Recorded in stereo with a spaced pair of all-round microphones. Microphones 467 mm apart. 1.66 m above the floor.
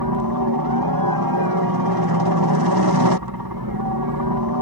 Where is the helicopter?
50° right (ahead or behind).